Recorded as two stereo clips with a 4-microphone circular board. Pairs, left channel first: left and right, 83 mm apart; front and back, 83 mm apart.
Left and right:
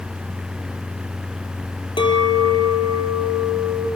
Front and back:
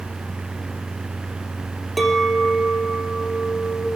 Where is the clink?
90° left, 3.5 m.